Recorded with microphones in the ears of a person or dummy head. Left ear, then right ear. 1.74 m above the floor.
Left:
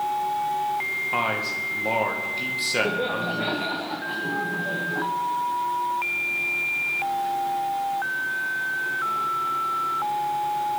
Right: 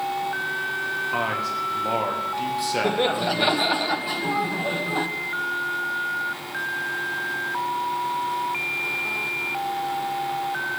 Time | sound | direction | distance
1.1 | a man speaking | 10° left (ahead or behind) | 2.0 m
2.8 | laughter | 45° right (ahead or behind) | 0.9 m